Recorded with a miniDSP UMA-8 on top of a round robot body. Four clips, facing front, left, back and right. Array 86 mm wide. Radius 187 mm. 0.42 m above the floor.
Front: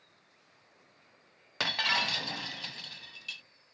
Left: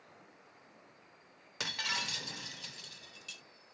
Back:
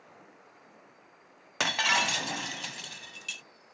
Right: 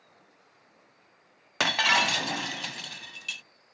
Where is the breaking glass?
110° right.